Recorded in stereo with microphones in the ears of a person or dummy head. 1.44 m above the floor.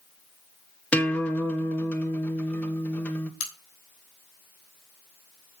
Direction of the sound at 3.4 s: 70° left (ahead or behind).